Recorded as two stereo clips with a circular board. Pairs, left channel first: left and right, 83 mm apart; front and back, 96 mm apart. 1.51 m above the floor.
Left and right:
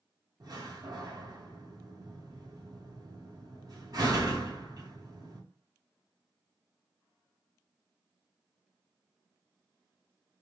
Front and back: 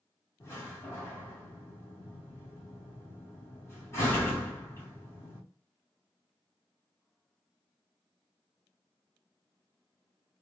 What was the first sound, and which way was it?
A door slam, 60° right.